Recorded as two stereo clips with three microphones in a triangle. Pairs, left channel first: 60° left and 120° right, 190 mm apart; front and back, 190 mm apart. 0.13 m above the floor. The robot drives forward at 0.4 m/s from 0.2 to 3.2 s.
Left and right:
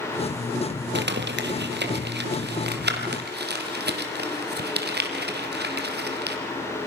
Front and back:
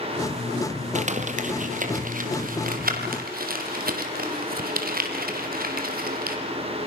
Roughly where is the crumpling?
Behind right.